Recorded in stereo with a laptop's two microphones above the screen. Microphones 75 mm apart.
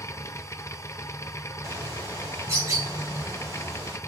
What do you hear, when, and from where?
0.0 s a machine running: 40° left (ahead or behind), 0.7 m
1.6 s a bird: 40° right (ahead or behind), 3 m